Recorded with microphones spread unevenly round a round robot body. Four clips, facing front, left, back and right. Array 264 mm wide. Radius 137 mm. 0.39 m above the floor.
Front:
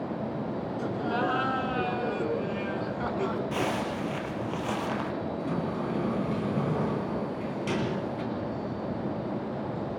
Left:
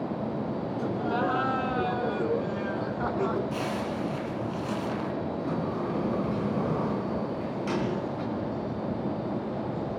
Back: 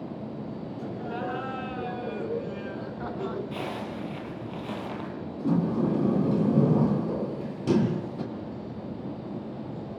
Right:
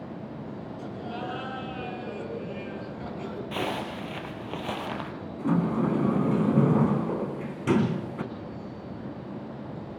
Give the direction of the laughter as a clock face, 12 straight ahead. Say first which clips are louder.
Left 8 dB, front 4 dB; 10 o'clock.